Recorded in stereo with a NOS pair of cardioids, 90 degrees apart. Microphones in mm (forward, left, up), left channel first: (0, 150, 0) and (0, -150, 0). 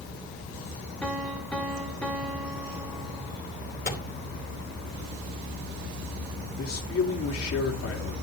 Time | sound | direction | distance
1.0 | a piano | 5° left | 2.5 m
3.9 | a microwave | 30° left | 4 m
6.6 | a man speaking | 45° left | 3 m